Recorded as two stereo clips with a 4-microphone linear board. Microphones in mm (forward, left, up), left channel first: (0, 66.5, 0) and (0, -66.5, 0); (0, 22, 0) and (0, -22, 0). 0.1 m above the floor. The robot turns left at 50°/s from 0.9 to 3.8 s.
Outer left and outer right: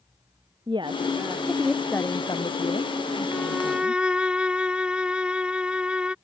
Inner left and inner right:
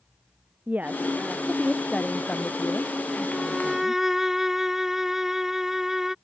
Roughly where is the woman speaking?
Behind right.